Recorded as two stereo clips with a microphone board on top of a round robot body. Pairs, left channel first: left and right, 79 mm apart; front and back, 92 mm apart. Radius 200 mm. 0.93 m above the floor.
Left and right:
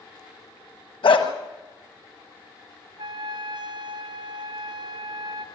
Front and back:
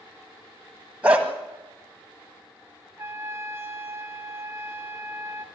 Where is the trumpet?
115° right, 1.6 m.